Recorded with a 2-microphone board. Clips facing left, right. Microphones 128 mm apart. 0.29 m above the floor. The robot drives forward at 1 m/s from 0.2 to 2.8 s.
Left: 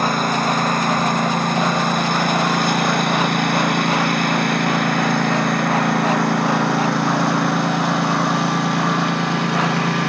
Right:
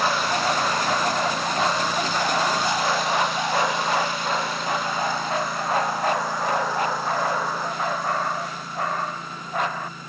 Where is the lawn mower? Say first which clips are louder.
Left 4 dB; 50° left (ahead or behind); by 10.1 s 70° left (ahead or behind).